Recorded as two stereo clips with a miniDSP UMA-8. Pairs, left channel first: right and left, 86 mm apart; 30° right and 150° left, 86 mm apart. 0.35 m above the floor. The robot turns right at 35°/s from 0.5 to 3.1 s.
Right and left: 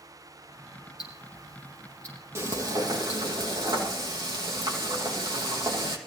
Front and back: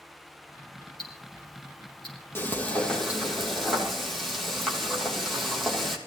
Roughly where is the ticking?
Ahead right.